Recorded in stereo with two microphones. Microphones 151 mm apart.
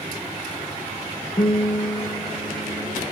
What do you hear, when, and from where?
1.4 s a guitar: 45° left (ahead or behind), 0.8 m